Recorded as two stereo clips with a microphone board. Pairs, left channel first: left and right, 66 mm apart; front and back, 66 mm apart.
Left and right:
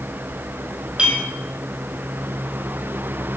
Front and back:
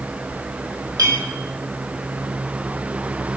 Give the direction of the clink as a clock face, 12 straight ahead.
5 o'clock.